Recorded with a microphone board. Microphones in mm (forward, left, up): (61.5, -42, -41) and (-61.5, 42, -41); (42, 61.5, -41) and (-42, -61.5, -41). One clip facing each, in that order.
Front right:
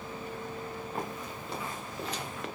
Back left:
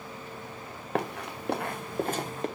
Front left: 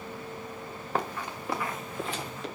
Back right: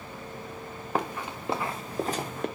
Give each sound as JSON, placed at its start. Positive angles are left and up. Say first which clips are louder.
{"t": 0.9, "sound": "running footsteps", "louder": "back left 10 dB, back right 1 dB", "azimuth_deg": 155, "distance_m": 2.5}